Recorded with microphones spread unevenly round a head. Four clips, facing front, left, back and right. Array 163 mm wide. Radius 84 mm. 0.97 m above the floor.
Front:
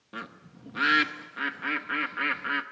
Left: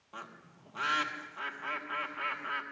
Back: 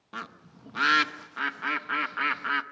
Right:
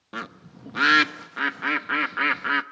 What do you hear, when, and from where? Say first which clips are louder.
0.1 s a bird: right 11 dB, back 1 dB; 90° right, 0.8 m